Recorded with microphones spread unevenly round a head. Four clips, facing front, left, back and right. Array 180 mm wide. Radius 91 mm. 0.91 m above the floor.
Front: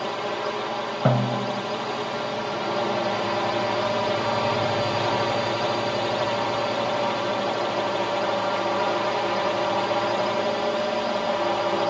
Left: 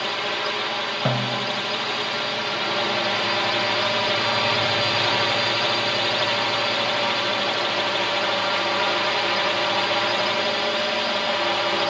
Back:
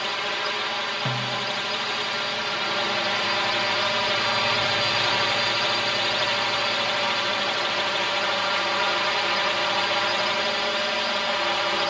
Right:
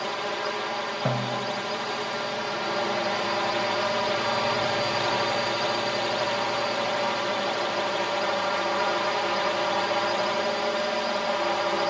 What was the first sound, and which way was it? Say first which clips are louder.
A drone: left 2 dB, front 2 dB; 10° left.